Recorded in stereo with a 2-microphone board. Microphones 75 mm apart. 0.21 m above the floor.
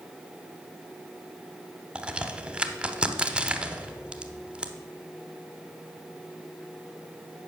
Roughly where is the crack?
Centre.